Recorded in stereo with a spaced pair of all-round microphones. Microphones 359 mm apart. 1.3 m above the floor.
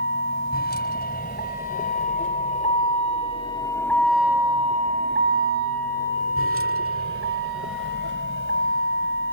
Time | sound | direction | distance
0.0 | a vehicle | 25° left (ahead or behind) | ?